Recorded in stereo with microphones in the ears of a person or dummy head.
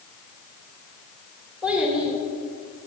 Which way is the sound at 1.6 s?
5° right (ahead or behind).